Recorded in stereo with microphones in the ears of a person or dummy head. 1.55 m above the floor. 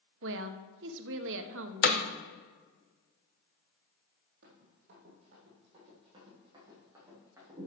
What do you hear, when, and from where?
0.2 s a woman speaking: 60° right (ahead or behind), 1.0 m
1.8 s hammering: 45° left (ahead or behind), 0.7 m
4.4 s running footsteps: 50° right (ahead or behind), 2.5 m; by 7.7 s 20° right (ahead or behind), 5 m